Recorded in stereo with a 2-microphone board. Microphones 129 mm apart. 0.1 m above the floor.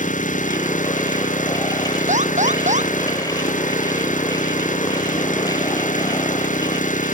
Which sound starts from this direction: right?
An alarm, at 2.1 s.